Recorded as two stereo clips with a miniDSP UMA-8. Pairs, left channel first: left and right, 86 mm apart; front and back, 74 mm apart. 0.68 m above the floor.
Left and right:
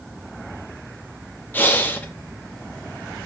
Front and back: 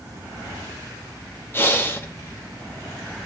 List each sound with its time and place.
1.5 s breathing: 35° left, 0.7 m